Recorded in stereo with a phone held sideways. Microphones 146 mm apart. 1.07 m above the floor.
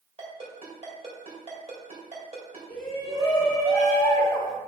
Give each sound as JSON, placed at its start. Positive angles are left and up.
{"t": 0.2, "sound": "a ringtone", "side_deg": -45, "distance_m": 2.0}
{"t": 2.7, "sound": "a shout", "side_deg": 35, "distance_m": 1.8}